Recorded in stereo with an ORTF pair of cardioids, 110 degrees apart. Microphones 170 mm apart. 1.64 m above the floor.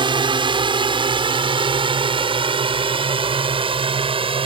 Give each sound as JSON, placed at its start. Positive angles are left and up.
{"t": 0.0, "sound": "a drone", "azimuth_deg": -30}